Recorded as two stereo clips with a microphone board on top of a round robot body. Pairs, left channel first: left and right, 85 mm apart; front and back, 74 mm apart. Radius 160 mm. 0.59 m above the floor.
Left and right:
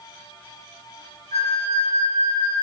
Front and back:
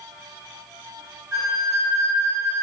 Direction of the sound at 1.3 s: 130° right.